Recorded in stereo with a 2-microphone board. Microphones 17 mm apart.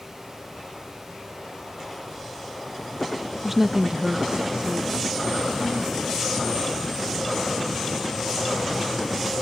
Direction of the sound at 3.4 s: Centre (ahead or behind).